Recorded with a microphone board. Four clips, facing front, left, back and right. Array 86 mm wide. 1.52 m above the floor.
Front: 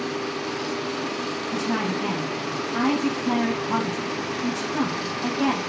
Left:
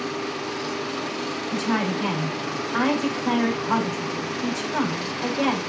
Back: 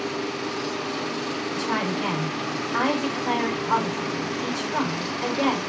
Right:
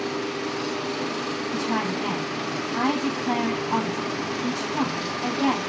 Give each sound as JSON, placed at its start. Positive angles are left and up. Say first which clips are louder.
{"t": 1.5, "sound": "a woman speaking", "louder": "left 3 dB, front 1 dB", "azimuth_deg": 135, "distance_m": 5.0}